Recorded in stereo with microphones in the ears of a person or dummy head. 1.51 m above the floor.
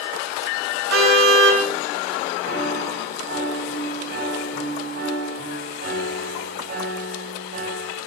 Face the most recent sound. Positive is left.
turn(degrees=-55)  # may be behind; listen again after turning